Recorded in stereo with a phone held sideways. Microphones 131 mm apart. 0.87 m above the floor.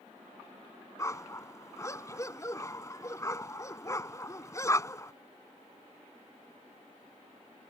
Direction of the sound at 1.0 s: 25° left (ahead or behind).